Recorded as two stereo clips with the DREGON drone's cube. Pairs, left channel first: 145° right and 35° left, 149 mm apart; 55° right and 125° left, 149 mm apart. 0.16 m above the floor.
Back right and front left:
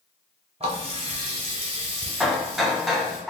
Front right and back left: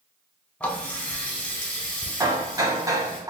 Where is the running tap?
25° left, 0.9 m.